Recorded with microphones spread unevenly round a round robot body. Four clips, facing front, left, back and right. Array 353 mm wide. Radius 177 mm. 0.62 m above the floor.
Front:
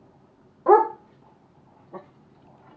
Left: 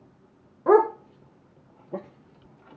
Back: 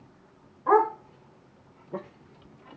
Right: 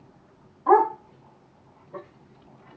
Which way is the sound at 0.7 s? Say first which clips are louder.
Even, front 5 dB; 55° left.